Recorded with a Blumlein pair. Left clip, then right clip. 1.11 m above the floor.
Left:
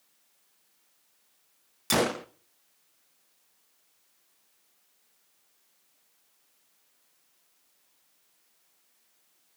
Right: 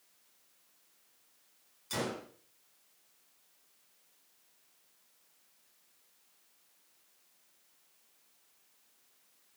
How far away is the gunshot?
About 1.2 m.